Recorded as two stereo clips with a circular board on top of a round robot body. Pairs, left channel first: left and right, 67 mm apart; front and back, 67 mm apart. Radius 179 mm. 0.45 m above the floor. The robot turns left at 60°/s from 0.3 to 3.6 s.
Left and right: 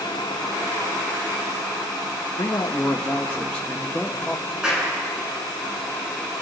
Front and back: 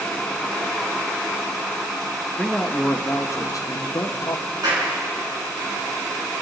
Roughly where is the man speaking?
Left.